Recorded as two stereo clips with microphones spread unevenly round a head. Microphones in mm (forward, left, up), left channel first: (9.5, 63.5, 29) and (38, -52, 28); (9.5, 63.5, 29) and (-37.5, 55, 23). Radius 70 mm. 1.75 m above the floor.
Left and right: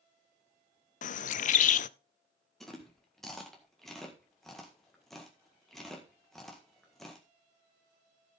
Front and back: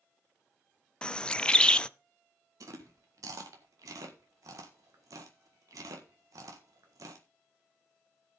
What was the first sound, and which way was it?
A bird, 85° left.